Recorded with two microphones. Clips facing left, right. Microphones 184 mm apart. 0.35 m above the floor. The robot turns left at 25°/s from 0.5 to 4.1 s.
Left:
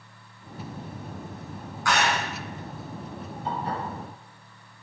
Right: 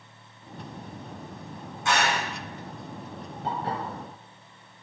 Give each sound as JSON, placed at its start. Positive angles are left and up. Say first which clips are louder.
{"t": 1.9, "sound": "a clap", "louder": "left 1 dB", "side_deg": -25, "distance_m": 2.0}
{"t": 3.4, "sound": "dishes clattering", "louder": "even", "side_deg": -65, "distance_m": 4.5}